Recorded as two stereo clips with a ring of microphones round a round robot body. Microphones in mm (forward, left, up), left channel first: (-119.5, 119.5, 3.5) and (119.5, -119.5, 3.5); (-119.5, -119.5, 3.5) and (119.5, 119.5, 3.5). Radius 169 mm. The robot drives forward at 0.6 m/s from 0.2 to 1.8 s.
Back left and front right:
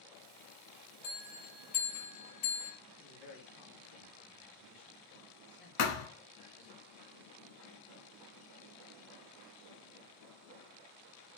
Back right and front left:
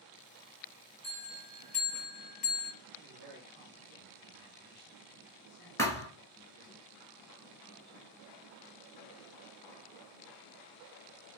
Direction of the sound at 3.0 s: 170° left.